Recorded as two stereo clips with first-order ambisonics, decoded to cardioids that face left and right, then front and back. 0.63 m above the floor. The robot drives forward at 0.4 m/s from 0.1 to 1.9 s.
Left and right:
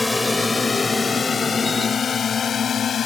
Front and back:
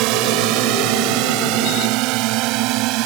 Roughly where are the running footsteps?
No running footsteps in this recording.